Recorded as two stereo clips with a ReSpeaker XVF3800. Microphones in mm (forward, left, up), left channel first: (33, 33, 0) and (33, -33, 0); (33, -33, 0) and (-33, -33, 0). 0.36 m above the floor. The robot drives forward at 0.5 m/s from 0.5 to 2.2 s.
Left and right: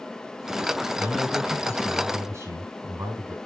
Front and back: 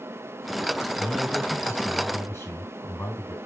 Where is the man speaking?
45° right, 5 m; by 3.4 s 50° right, 4.5 m.